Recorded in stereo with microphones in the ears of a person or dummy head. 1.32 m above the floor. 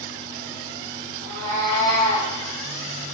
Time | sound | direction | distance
1.2 | a cat meowing | centre (ahead or behind) | 1.6 m